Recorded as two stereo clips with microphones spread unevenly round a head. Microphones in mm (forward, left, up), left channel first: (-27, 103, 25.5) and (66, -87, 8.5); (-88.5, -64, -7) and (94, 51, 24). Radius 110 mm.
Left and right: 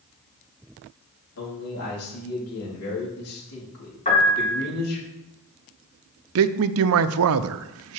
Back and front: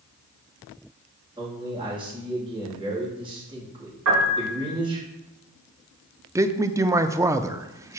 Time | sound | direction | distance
1.4 | a man speaking | 105° left | 3.5 m
4.0 | a piano | 55° left | 4.5 m
6.3 | a man speaking | 40° right | 0.5 m